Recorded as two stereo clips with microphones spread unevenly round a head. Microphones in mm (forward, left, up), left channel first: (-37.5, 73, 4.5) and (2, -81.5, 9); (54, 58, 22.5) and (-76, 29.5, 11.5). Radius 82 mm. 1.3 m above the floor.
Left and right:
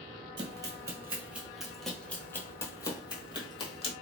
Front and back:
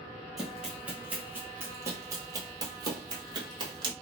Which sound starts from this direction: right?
Running footsteps, at 0.4 s.